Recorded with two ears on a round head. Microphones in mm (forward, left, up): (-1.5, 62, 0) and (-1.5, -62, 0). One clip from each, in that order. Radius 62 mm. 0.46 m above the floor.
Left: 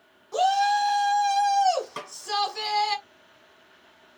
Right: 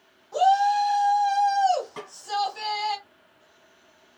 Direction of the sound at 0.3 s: 40° left (ahead or behind).